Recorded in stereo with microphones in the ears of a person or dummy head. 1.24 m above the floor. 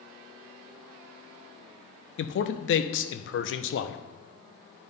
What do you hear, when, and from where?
2.2 s a man speaking: 65° left (ahead or behind), 0.6 m